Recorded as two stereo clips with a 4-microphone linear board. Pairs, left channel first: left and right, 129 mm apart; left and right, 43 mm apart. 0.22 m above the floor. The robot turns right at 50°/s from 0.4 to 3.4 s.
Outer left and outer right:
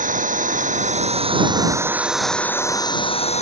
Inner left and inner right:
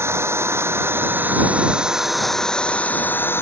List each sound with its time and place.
0.0 s an engine running: 90° right; by 3.4 s 60° left